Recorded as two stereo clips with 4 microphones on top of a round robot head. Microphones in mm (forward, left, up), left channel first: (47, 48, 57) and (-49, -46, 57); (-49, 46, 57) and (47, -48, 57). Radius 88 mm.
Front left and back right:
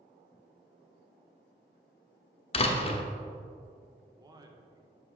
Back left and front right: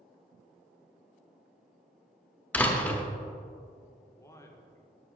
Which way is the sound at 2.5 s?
60° left.